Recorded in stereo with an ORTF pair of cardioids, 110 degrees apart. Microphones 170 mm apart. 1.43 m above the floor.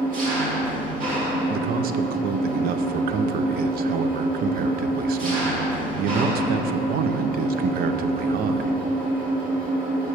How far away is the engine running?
About 2 m.